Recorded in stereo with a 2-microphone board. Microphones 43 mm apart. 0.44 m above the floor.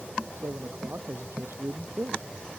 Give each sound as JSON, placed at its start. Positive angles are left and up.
{"t": 0.4, "sound": "a man speaking", "side_deg": -75}